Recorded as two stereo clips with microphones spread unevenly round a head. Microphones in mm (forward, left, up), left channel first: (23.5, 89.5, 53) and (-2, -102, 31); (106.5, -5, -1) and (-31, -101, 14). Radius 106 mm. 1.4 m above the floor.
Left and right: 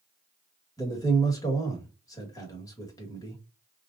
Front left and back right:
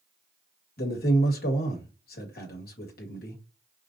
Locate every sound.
0.8 s a man speaking: 10° left, 1.8 m